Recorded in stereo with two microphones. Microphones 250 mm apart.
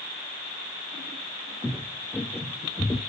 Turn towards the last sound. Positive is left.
turn(degrees=15)  # may be behind; listen again after turning